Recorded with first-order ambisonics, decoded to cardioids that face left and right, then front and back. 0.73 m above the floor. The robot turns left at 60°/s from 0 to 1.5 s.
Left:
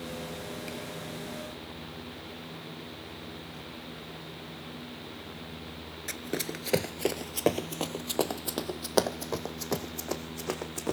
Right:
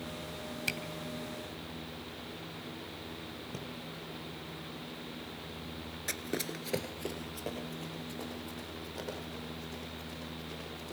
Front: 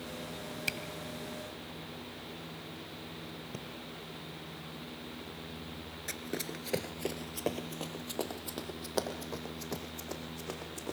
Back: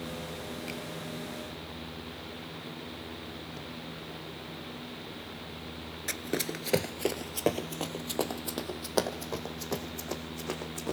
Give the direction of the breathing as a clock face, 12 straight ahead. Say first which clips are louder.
Right 1 dB, back 2 dB; 1 o'clock.